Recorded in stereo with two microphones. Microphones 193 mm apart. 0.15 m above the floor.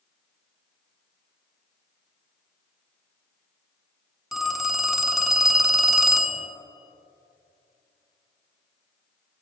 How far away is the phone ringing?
About 0.7 m.